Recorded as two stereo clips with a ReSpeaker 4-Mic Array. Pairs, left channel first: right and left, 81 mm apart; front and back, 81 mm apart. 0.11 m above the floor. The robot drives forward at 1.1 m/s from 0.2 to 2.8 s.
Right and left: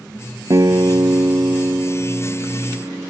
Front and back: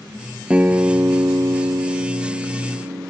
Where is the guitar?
110° left; by 3.1 s 160° left.